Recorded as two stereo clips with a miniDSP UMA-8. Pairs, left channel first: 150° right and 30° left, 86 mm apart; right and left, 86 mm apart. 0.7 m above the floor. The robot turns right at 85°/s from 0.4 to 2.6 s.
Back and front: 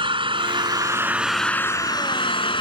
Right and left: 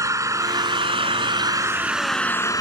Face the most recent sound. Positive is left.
turn(degrees=-135)